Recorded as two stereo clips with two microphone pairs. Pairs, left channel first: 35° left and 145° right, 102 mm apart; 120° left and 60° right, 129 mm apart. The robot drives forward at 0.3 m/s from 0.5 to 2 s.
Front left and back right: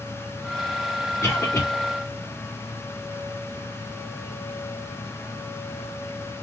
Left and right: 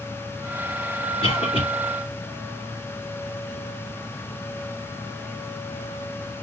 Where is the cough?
90° left, 2.0 m; by 1.7 s 95° left, 2.0 m.